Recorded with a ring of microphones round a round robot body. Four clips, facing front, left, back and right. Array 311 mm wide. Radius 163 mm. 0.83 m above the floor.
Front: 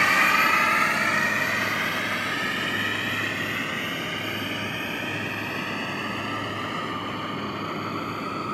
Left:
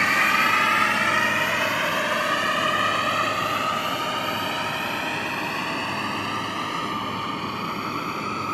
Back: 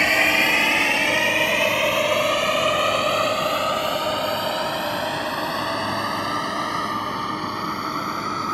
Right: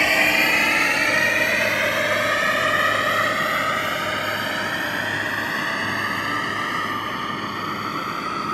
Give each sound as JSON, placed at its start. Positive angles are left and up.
{"t": 0.0, "sound": "a drone", "azimuth_deg": -135}